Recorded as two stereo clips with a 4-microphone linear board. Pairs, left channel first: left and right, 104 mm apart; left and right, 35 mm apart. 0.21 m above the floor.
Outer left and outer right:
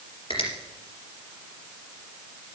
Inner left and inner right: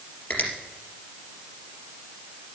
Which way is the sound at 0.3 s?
60° left (ahead or behind).